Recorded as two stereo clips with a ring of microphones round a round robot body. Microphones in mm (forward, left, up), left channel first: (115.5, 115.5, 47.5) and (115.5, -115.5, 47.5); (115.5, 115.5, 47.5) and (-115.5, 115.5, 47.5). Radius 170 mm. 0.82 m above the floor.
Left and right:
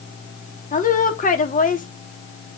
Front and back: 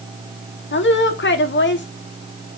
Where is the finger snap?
No finger snap in this recording.